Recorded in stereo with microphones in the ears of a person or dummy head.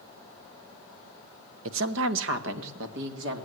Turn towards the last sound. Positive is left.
turn(degrees=-65)  # may be behind; listen again after turning